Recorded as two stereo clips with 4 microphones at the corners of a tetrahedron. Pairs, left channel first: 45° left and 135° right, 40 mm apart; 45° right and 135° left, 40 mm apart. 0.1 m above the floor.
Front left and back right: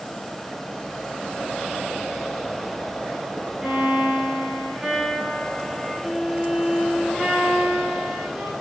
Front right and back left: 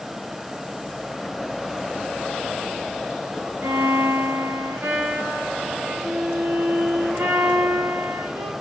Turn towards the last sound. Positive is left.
turn(degrees=150)